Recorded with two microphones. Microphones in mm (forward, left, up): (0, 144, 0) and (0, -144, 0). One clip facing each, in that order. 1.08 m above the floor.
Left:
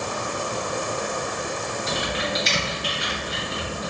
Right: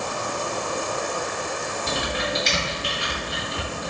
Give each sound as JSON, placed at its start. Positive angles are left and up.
{"t": 1.9, "sound": "typing on a keyboard", "side_deg": -65, "distance_m": 1.8}